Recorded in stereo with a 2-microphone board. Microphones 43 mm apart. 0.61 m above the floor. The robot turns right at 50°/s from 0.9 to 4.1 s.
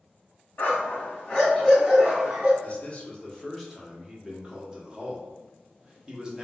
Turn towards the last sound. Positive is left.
turn(degrees=-155)